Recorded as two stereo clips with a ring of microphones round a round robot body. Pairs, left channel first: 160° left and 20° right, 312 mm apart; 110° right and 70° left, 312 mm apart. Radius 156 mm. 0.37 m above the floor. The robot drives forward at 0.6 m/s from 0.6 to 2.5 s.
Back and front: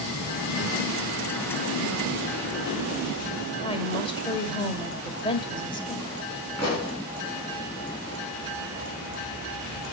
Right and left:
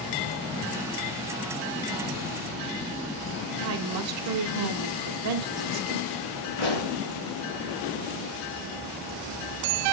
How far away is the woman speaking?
About 1.4 m.